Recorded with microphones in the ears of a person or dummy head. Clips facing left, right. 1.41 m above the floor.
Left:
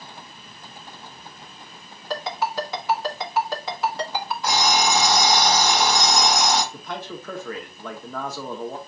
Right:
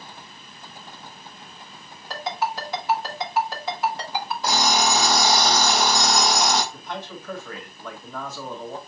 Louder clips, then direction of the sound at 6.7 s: Left 1 dB; 60° left (ahead or behind).